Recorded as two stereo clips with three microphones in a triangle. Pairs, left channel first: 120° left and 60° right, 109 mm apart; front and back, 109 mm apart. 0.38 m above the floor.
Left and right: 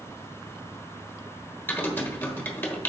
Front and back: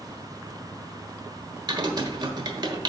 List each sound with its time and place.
1.7 s typing on a keyboard: straight behind, 1.2 m